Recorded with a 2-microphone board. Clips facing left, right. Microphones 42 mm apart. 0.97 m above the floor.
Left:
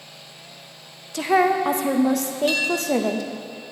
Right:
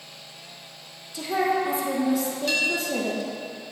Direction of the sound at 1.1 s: 60° left (ahead or behind).